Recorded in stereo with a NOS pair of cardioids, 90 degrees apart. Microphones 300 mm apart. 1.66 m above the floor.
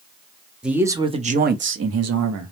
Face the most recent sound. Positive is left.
turn(degrees=-70)